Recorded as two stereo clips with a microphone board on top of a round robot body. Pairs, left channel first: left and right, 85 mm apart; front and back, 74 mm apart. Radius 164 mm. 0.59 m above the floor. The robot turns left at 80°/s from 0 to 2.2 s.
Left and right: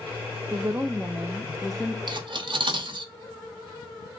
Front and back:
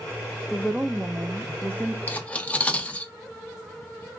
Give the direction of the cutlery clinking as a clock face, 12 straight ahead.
2 o'clock.